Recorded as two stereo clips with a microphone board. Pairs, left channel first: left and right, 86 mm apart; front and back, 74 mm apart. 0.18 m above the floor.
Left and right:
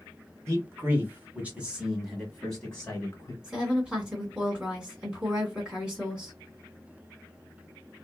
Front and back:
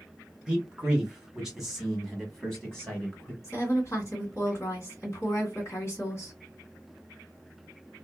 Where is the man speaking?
115° right, 1.5 m; by 3.3 s 65° left, 1.4 m.